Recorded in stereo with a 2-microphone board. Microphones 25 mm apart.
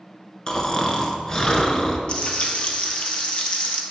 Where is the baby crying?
No baby crying in this recording.